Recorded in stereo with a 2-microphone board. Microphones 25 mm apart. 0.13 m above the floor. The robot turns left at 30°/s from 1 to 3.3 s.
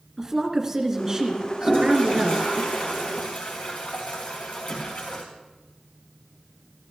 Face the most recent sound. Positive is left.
turn(degrees=90)